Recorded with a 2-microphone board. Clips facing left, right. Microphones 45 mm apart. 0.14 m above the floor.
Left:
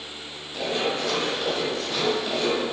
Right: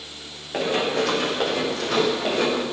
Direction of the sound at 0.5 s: 80° right.